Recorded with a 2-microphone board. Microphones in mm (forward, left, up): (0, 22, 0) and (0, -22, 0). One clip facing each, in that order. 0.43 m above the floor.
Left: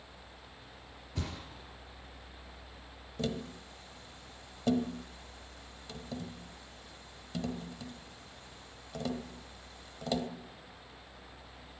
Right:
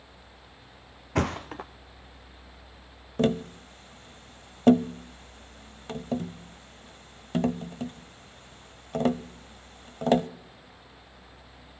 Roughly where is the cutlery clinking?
No cutlery clinking in this recording.